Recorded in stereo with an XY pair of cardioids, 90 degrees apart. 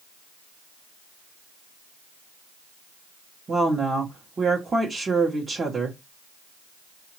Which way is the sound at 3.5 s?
35° right.